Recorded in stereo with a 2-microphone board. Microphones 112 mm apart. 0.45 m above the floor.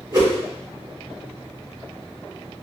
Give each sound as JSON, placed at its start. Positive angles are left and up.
{"t": 0.1, "sound": "a whoosh", "side_deg": -35, "distance_m": 1.2}